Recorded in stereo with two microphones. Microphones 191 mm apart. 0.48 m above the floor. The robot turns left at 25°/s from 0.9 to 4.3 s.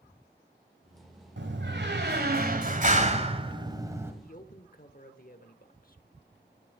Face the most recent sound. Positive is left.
turn(degrees=50)  # may be behind; listen again after turning